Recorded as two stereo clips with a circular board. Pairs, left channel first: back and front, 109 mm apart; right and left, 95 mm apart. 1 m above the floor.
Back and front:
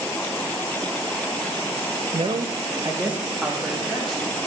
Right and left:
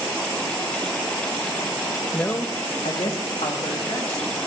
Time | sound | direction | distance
2.1 | a man speaking | 20° right | 0.7 m